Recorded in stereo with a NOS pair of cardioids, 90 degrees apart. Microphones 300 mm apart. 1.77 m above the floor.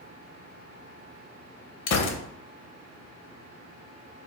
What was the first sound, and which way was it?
A gunshot, 60° left.